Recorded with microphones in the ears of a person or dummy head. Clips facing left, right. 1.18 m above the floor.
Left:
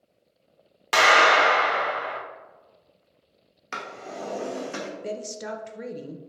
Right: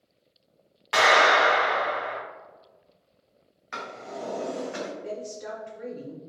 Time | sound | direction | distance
0.9 | a clap | 55° left (ahead or behind) | 0.8 m
3.7 | a drawer | 55° left (ahead or behind) | 0.8 m
5.0 | a woman speaking | 65° left (ahead or behind) | 0.6 m